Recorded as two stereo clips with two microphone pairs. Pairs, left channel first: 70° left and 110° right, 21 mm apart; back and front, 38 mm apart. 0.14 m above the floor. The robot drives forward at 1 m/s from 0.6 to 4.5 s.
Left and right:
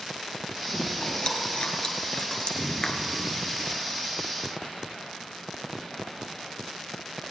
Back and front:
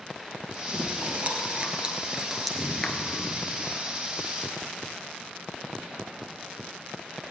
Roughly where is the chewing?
Ahead left.